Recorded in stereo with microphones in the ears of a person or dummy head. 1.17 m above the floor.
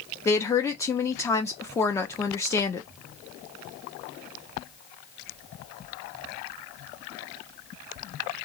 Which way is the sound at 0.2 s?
15° left (ahead or behind).